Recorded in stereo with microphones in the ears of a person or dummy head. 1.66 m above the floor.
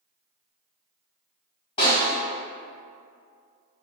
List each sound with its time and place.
1.8 s a snare drum: 30° left (ahead or behind), 1.7 m